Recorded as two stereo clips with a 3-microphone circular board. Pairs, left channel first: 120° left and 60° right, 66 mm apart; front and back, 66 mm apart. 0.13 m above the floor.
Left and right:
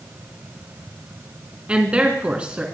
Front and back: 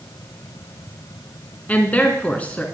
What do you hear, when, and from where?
1.7 s a woman speaking: 15° right, 1.6 m